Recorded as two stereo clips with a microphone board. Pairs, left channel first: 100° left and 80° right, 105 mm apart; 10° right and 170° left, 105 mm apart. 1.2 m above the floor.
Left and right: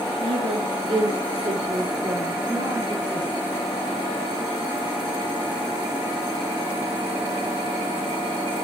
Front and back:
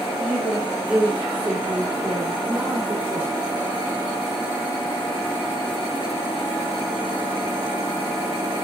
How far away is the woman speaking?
About 3.5 m.